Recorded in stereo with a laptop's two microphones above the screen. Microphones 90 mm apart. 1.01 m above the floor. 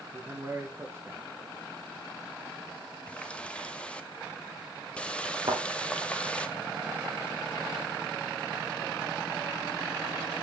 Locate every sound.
0.1 s a man speaking: 30° right (ahead or behind), 0.9 m
3.1 s a running tap: 10° left (ahead or behind), 0.6 m
5.5 s a thud: 60° right (ahead or behind), 1.8 m